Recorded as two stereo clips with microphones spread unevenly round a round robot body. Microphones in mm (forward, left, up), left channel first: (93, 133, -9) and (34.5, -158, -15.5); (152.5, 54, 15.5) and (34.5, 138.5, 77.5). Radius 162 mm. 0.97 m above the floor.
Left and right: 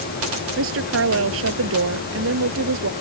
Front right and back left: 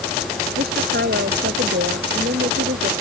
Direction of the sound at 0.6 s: 155° right.